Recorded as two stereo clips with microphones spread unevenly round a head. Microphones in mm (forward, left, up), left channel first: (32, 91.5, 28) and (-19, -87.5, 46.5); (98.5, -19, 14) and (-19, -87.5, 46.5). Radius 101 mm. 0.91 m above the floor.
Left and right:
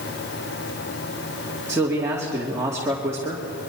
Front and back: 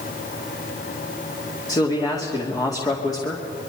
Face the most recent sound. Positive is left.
turn(degrees=-30)